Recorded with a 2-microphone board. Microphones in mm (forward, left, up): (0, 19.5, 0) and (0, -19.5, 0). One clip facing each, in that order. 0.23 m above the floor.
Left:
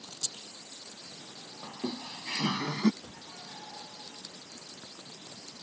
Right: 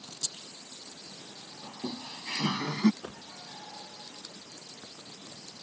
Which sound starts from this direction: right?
A whoosh, at 3.0 s.